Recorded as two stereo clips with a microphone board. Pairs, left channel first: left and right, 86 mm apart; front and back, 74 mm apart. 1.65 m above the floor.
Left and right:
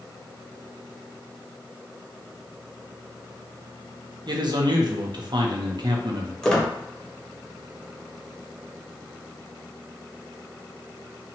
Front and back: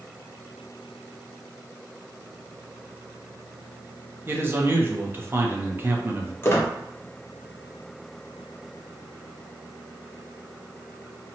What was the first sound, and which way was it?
A man speaking, 120° right.